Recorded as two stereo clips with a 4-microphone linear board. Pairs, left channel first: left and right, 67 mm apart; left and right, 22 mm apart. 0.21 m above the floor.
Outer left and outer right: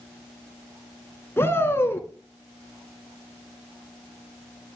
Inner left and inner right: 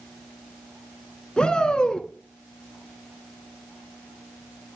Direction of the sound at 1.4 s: 35° left (ahead or behind).